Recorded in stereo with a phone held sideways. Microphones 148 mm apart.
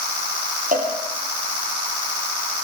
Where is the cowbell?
65° right (ahead or behind), 8.5 m.